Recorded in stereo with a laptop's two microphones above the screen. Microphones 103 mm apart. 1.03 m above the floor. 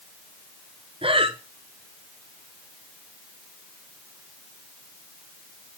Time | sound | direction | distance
1.0 | breathing | 60° right (ahead or behind) | 1.1 m